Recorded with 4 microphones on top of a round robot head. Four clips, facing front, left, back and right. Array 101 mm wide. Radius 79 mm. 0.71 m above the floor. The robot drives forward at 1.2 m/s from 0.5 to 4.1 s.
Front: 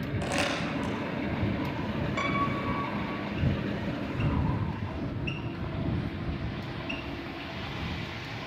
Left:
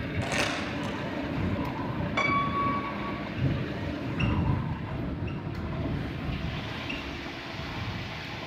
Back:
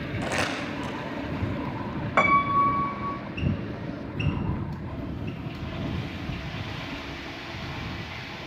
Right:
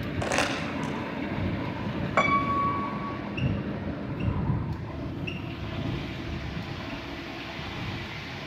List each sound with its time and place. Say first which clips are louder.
0.2 s crumpling: right 3 dB, back 1 dB; 95° right, 9 m; by 0.9 s 100° right, 9 m
2.2 s a piano: right 3 dB, back 11 dB; 145° right, 0.9 m; by 3.2 s 170° right, 2.0 m
4.2 s breathing: left 3 dB, back 2 dB; 65° left, 6.5 m